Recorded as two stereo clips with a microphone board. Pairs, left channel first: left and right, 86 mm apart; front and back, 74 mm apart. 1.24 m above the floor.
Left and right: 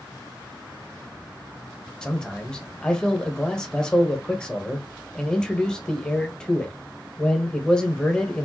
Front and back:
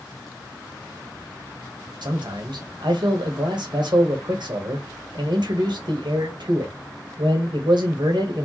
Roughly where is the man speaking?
Behind.